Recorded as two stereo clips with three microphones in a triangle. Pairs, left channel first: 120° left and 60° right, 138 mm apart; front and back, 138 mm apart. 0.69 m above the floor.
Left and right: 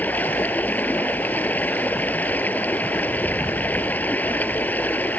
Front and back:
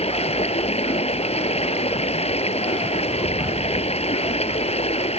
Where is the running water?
40° left.